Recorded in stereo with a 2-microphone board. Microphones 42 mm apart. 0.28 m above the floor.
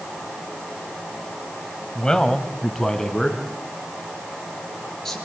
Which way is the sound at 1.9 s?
15° left (ahead or behind).